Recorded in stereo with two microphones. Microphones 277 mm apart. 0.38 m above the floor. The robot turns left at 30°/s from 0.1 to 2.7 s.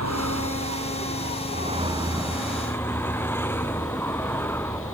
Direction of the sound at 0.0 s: 110° right.